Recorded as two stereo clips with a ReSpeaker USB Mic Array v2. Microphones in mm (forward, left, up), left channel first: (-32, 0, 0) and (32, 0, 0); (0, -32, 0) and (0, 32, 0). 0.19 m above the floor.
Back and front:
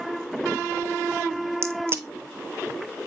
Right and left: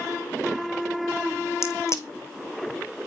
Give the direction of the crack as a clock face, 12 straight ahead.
2 o'clock.